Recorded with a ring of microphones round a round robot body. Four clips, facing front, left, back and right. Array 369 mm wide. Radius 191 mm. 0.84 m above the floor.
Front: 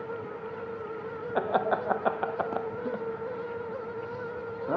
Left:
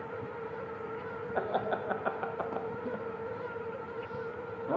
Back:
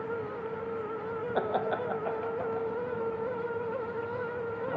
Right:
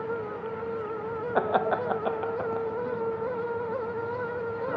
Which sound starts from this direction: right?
Laughter, at 1.4 s.